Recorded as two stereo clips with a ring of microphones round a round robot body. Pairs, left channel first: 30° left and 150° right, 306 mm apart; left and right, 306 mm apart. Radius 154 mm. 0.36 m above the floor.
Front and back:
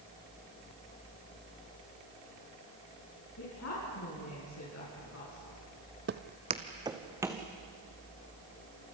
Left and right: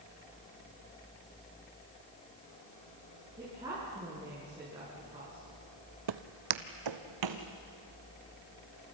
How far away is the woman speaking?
About 5.5 m.